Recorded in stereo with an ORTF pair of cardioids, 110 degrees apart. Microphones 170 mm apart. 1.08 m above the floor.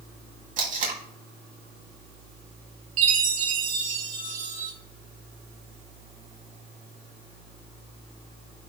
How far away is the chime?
About 2.5 m.